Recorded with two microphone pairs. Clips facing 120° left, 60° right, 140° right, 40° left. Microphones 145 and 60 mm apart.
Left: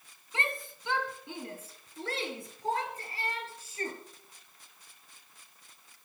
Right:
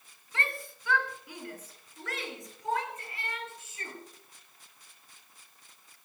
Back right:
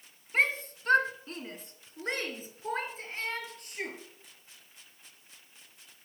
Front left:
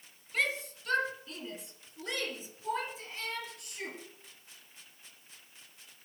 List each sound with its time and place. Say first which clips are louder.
0.3 s a shout: left 1 dB, back right 4 dB; 175° right, 2.5 m; by 4.0 s 170° left, 5 m